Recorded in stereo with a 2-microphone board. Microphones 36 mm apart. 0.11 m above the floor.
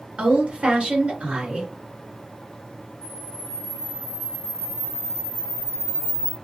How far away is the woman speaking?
About 1.5 m.